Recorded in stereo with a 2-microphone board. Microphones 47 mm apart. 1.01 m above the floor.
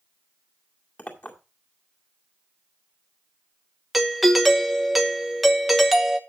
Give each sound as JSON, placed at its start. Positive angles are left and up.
{"t": 1.0, "sound": "a clink", "side_deg": 40, "distance_m": 2.0}
{"t": 3.9, "sound": "a doorbell", "side_deg": 0, "distance_m": 1.0}